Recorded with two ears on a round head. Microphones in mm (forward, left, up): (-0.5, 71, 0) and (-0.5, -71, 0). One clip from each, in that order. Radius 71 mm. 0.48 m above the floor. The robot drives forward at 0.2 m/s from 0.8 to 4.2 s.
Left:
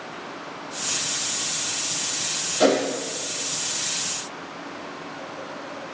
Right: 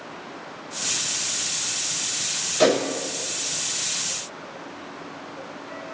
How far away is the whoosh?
About 0.5 m.